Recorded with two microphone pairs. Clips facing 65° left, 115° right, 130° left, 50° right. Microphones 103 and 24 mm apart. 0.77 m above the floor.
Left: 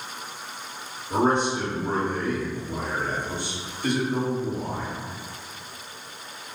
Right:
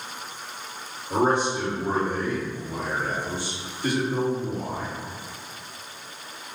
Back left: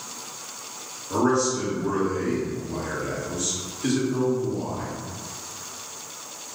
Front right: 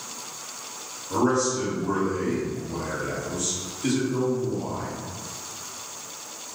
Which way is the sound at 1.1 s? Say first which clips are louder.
Even, back left 1 dB; 165° left.